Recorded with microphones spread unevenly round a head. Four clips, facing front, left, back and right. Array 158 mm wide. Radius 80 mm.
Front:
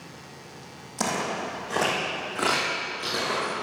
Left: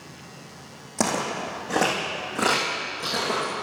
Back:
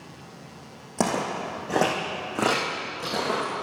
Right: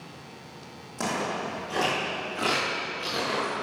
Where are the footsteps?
140° left, 2.5 m; by 3.5 s 160° left, 5 m.